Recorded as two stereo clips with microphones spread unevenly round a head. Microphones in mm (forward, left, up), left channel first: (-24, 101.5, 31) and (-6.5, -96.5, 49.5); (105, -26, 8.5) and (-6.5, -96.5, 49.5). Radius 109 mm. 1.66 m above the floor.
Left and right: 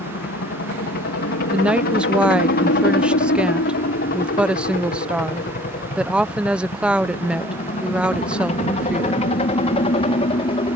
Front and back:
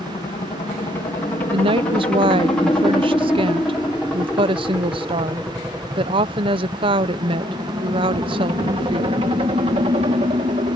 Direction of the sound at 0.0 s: 85° left.